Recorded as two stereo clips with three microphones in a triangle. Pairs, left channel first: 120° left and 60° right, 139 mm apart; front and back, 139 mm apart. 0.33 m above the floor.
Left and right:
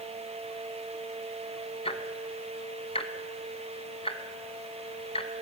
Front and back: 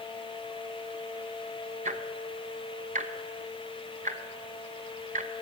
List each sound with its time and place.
1.9 s ticking: 160° left, 0.9 m